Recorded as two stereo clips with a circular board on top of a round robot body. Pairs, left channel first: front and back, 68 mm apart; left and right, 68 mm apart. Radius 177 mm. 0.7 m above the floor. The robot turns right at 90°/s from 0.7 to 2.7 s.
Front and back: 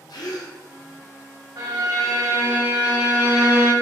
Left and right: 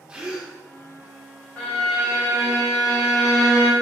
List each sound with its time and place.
0.1 s a gasp: 15° right, 1.0 m
1.6 s a violin: 155° left, 1.8 m; by 3.7 s 105° right, 1.8 m